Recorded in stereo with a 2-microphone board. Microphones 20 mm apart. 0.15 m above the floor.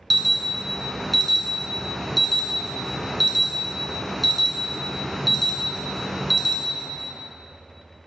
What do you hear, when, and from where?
0.1 s an alarm: centre (ahead or behind), 1.0 m